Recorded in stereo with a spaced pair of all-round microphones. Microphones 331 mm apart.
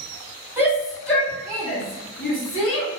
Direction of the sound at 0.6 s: 10° right (ahead or behind).